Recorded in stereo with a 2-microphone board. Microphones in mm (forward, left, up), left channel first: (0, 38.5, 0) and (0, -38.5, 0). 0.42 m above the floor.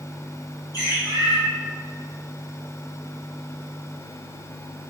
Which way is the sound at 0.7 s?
45° left (ahead or behind).